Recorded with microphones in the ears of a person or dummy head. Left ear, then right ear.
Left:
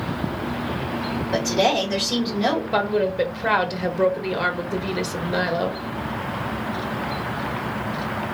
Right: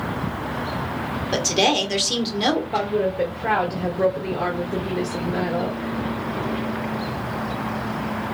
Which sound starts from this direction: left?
A woman speaking, at 2.7 s.